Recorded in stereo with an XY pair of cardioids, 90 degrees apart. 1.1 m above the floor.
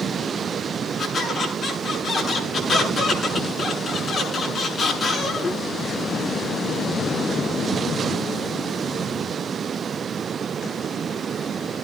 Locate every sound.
1.0 s a squeak: 55° left, 8 m